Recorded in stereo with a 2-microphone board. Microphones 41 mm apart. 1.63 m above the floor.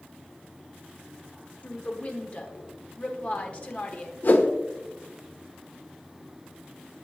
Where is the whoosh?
55° left (ahead or behind), 0.8 m.